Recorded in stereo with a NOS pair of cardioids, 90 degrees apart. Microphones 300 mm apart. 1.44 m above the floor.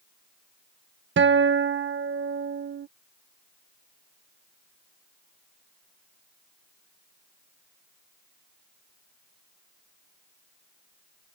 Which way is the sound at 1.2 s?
40° right.